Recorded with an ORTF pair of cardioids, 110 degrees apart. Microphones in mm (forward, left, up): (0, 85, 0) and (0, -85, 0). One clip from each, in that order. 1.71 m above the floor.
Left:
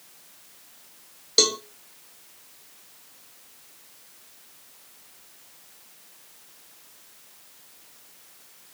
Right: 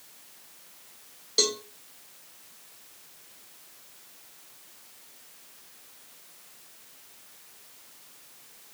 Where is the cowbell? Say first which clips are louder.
Left 5 dB; 30° left, 0.6 m.